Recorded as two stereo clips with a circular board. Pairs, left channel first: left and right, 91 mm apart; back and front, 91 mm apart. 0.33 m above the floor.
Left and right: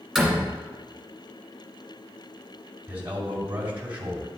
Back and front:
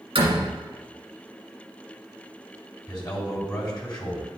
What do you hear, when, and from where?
0.1 s a door slam: straight ahead, 2.5 m
2.9 s a man speaking: 155° right, 2 m